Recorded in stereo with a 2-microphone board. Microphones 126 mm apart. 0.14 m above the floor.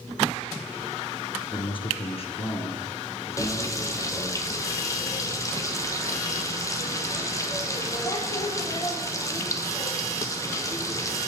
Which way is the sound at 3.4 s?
25° left (ahead or behind).